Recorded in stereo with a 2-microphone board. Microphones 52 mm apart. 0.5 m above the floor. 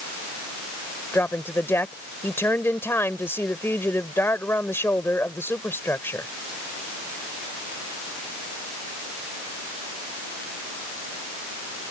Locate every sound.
1.1 s a woman speaking: 55° left (ahead or behind)